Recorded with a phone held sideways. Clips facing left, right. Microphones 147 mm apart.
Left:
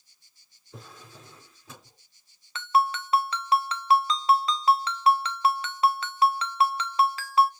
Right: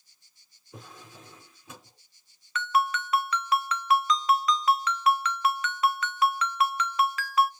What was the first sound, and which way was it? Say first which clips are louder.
A drawer: even; 15° right (ahead or behind).